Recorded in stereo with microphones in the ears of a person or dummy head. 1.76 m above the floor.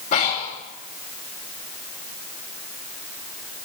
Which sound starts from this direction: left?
Breathing, at 0.1 s.